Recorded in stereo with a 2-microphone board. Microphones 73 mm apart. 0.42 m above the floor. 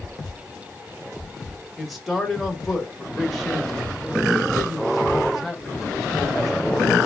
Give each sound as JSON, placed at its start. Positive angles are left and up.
{"t": 1.8, "sound": "a man speaking", "side_deg": 0, "distance_m": 1.1}